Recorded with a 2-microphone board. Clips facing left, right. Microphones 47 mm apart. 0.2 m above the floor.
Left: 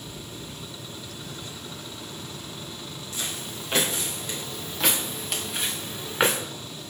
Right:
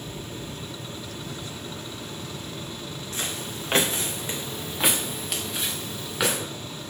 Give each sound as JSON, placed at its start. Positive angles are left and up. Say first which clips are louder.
{"t": 3.1, "sound": "footsteps", "louder": "right 2 dB", "side_deg": -55, "distance_m": 2.5}